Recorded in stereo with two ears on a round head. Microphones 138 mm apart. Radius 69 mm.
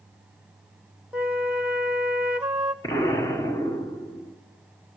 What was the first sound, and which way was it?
A flute, 5° right (ahead or behind).